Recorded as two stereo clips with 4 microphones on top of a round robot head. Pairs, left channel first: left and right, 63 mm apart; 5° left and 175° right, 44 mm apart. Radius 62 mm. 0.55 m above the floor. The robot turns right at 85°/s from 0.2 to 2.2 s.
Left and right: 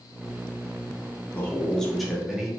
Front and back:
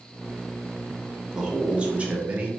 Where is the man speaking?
120° left, 0.9 m; by 2.5 s 165° right, 0.9 m.